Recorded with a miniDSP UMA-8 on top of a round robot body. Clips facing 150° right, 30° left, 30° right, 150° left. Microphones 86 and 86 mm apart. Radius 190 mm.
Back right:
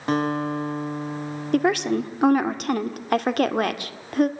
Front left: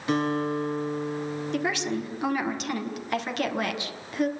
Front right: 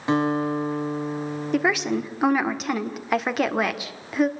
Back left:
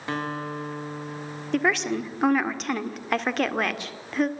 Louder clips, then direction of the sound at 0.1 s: Back right 2 dB, front right 8 dB; 100° right.